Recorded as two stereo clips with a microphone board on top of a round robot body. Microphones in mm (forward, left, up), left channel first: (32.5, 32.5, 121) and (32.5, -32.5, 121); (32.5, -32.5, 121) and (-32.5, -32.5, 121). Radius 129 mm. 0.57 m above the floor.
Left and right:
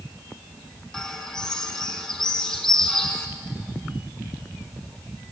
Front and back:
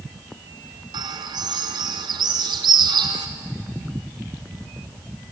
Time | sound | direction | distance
0.9 | a bird | 175° left | 1.2 m